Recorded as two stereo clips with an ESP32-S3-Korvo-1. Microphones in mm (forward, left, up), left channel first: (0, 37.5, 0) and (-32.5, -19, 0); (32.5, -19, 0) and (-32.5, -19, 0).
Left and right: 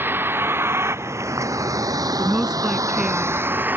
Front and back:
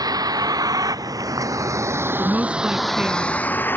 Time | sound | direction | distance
0.0 | a vehicle | 175° right | ?
2.2 | a woman speaking | 170° right | ?